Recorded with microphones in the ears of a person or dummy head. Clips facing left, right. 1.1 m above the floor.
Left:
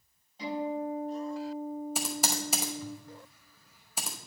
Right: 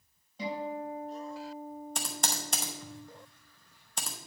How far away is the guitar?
About 4 m.